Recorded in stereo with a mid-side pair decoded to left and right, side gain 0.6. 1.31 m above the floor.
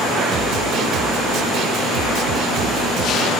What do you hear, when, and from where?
0.3 s a snare drum: 60° right